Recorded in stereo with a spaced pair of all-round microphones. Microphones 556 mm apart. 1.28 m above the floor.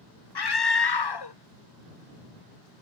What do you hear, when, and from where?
0.3 s a scream: 45° left (ahead or behind)